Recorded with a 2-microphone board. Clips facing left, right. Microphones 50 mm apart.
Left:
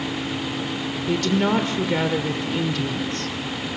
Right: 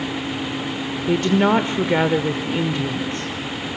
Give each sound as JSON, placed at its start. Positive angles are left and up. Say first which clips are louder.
{"t": 1.1, "sound": "a woman speaking", "louder": "right 4 dB", "side_deg": -25, "distance_m": 1.0}